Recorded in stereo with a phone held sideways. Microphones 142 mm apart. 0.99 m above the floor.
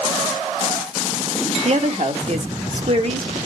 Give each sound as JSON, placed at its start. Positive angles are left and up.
{"t": 1.6, "sound": "a woman speaking", "side_deg": -50, "distance_m": 1.1}